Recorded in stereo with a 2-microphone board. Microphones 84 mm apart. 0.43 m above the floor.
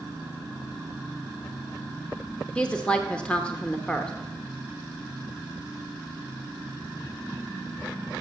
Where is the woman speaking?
15° left (ahead or behind), 0.9 m.